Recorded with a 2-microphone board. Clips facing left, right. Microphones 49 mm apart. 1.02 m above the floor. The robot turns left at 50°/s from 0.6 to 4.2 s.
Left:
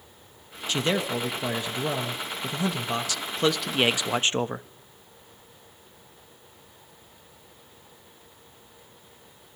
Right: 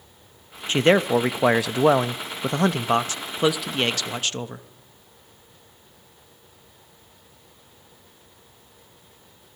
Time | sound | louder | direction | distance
0.7 | a man speaking | right 8 dB | 35° right | 0.8 m